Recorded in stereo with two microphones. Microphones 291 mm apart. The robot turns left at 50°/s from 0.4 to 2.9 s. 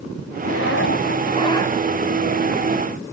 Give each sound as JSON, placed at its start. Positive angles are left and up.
{"t": 0.4, "sound": "a zipper", "azimuth_deg": 75}